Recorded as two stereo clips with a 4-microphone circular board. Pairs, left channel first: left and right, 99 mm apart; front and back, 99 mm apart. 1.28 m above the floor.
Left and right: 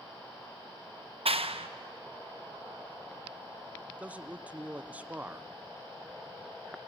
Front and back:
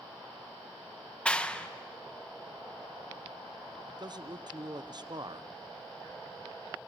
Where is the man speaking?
160° right, 0.7 m.